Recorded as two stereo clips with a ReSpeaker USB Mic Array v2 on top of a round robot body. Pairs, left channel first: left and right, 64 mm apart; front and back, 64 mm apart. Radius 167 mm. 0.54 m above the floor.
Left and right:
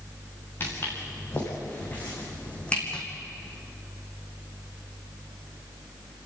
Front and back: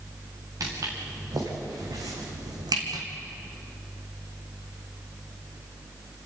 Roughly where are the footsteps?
Behind left.